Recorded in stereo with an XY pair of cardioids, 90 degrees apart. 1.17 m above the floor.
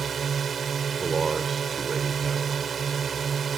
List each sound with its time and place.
0.0 s a drone: 45° right
1.0 s a man speaking: 35° right